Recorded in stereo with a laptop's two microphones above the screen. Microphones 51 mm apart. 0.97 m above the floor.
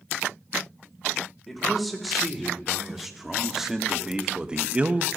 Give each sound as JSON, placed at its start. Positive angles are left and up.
{"t": 1.5, "sound": "a man speaking", "side_deg": 0, "distance_m": 3.5}